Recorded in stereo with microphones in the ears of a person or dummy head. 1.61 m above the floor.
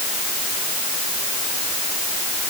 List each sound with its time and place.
Only background noise.